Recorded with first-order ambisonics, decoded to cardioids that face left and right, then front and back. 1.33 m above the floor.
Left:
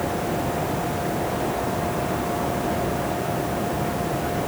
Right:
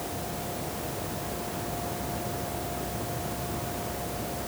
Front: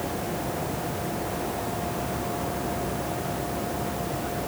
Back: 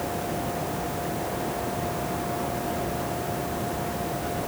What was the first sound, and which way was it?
Only background noise.